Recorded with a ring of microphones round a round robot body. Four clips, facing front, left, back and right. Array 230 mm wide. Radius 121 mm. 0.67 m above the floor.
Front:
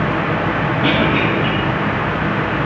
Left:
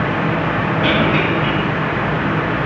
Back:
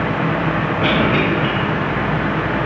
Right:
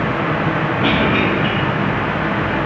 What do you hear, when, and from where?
0.8 s a cough: 135° left, 3 m